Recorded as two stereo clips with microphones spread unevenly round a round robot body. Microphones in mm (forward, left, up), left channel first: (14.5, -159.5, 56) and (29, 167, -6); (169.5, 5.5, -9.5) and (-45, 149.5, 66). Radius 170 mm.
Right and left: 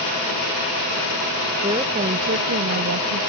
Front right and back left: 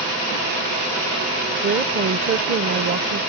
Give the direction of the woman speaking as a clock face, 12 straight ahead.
8 o'clock.